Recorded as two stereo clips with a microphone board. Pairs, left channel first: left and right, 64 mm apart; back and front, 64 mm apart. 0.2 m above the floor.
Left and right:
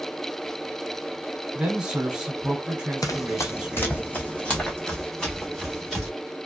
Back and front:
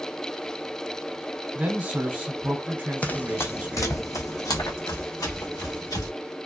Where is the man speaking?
25° right, 1.1 m.